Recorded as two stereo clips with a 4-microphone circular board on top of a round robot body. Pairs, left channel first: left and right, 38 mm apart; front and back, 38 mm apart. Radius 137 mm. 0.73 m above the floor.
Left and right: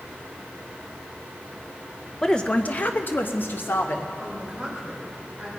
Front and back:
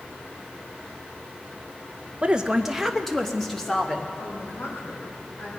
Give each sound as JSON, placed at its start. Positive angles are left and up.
{"t": 2.2, "sound": "a woman speaking", "azimuth_deg": 155, "distance_m": 0.8}
{"t": 4.2, "sound": "a woman speaking", "azimuth_deg": -20, "distance_m": 3.0}